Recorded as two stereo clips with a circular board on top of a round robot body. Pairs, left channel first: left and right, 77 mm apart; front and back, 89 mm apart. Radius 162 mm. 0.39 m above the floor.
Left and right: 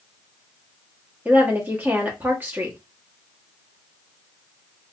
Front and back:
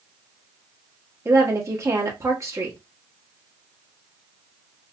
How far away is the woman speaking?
About 1.6 m.